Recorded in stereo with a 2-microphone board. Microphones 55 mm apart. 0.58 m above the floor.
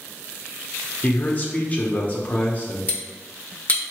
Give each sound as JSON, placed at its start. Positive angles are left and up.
{"t": 1.0, "sound": "a man speaking", "side_deg": 30, "distance_m": 0.8}
{"t": 2.9, "sound": "cutlery clinking", "side_deg": 30, "distance_m": 0.7}